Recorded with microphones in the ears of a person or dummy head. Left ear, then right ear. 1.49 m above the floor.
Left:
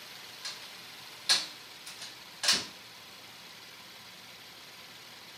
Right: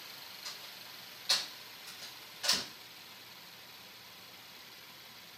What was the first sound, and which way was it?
A door slam, 25° left (ahead or behind).